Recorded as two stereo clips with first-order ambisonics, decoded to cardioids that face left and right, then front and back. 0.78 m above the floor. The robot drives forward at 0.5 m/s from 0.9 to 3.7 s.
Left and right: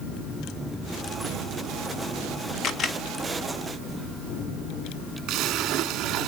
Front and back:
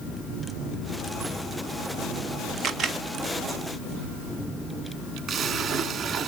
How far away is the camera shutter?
About 1.2 m.